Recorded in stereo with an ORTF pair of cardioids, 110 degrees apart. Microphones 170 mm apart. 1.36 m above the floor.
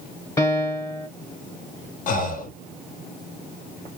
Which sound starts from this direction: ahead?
A piano, at 0.4 s.